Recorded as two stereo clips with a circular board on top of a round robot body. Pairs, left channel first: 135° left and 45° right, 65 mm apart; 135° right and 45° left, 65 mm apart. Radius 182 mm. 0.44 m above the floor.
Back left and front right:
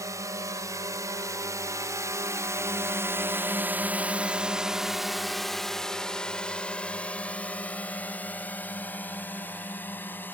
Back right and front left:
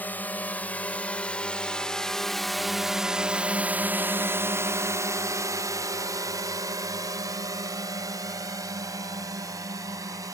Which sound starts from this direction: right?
A drone, at 0.0 s.